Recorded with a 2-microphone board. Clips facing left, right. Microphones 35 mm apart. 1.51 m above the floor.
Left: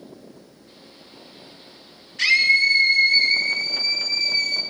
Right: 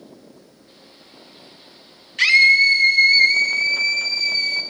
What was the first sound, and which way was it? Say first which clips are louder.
A scream: right 4 dB; 75° right (ahead or behind).